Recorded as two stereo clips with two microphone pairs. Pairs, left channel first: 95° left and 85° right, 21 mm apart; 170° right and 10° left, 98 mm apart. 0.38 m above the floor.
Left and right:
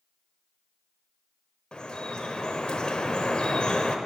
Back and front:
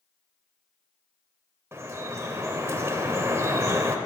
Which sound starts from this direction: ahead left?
Dripping, at 1.7 s.